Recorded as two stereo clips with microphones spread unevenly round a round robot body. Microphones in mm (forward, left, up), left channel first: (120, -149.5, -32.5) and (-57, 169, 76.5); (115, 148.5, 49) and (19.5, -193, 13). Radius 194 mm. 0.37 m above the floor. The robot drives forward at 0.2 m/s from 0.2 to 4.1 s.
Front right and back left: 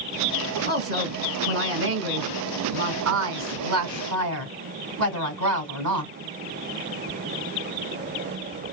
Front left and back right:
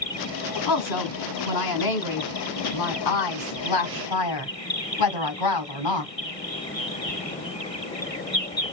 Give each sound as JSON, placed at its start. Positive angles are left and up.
{"t": 0.7, "sound": "a woman speaking", "azimuth_deg": 50, "distance_m": 2.5}